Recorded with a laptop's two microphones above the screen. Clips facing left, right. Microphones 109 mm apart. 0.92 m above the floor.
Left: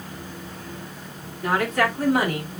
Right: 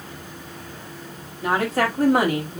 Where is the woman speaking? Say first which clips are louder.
Right 1 dB; 20° right (ahead or behind), 1.7 m; by 2.6 s 65° right (ahead or behind), 2.5 m.